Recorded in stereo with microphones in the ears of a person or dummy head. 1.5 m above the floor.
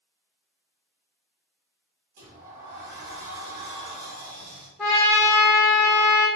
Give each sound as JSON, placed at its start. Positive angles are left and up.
{"t": 2.2, "sound": "a sliding door", "side_deg": -45, "distance_m": 1.1}
{"t": 4.8, "sound": "a trumpet", "side_deg": 5, "distance_m": 0.5}